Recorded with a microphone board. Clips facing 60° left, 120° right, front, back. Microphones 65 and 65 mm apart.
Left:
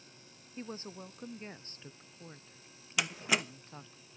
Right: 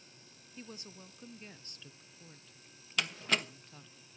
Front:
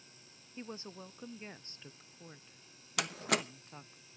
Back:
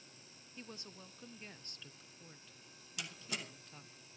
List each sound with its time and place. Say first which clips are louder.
0.6 s a woman speaking: left 6 dB, front 7 dB; 40° left, 0.6 m
3.0 s a door slam: left 1 dB, front 12 dB; 20° right, 1.0 m